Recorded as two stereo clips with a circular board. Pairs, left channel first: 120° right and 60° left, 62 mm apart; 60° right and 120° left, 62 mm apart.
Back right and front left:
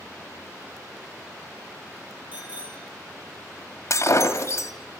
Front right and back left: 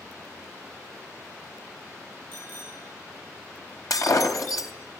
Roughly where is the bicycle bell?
Ahead.